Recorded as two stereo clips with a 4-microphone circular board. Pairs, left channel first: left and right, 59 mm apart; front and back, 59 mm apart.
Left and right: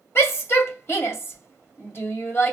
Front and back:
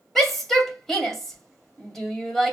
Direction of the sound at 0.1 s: 85° left.